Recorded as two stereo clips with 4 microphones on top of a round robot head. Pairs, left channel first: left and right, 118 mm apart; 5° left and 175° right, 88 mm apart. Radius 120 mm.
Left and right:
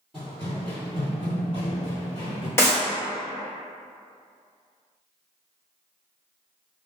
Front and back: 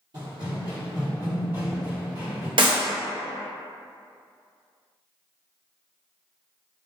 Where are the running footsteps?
170° left, 1.5 m; by 2.5 s 110° left, 2 m.